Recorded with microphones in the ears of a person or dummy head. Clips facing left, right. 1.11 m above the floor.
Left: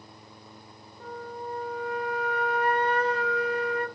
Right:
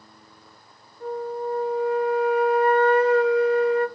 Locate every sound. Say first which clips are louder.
1.0 s a flute: right 10 dB; 55° left (ahead or behind), 2.5 m